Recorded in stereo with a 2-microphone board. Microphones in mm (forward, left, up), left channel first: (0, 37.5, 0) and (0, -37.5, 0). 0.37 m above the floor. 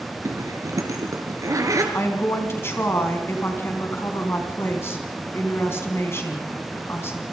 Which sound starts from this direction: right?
A zipper, at 0.2 s.